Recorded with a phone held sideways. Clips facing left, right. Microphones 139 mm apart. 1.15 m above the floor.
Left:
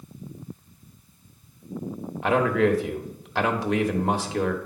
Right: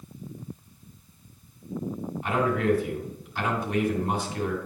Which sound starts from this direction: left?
A man speaking, at 2.2 s.